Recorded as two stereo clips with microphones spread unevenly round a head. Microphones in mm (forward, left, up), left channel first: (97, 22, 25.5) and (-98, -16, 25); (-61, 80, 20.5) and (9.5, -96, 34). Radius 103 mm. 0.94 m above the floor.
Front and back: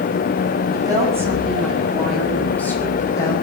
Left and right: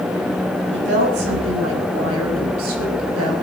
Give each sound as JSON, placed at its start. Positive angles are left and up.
{"t": 0.7, "sound": "a woman speaking", "azimuth_deg": -95, "distance_m": 6.0}